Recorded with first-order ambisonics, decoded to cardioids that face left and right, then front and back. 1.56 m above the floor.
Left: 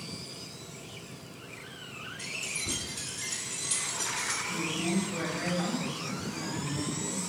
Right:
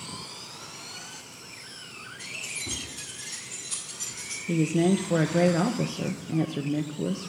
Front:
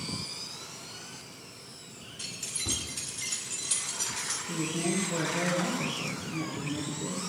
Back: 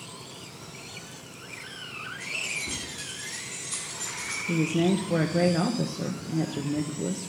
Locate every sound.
2.2 s keys jangling: 20° left, 4 m; by 4.4 s 40° left, 3 m
4.5 s a woman speaking: 120° right, 0.7 m